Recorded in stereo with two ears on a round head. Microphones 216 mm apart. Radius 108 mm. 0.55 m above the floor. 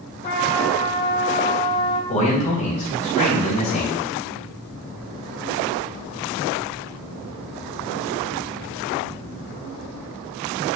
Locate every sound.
0.2 s a trumpet: 45° left (ahead or behind), 3 m
2.1 s a man speaking: 35° left (ahead or behind), 4 m